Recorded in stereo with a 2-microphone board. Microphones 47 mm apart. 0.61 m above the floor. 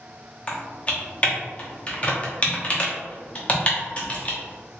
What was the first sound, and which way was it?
Typing on a keyboard, 25° left (ahead or behind).